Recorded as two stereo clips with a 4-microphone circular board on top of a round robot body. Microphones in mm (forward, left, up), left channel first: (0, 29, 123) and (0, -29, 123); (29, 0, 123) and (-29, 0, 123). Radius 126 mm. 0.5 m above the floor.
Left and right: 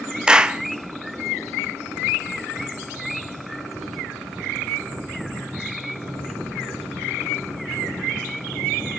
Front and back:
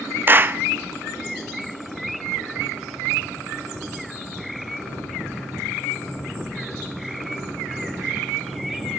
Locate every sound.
0.3 s a clap: 155° right, 1.2 m